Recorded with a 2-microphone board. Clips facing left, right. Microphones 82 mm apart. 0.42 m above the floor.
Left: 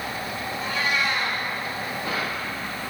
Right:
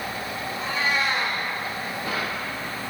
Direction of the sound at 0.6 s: 35° right (ahead or behind).